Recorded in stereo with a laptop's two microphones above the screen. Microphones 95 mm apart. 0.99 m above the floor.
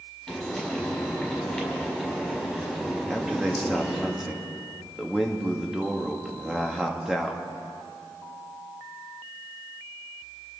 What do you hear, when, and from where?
0.3 s frying: 5° left (ahead or behind), 5 m
3.1 s a man speaking: 5° right (ahead or behind), 1.8 m